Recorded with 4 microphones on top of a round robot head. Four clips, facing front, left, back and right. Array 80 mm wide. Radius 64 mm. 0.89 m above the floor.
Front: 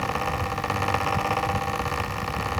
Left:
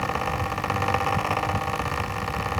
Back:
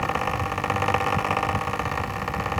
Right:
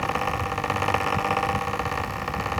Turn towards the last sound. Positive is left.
No sound to turn to.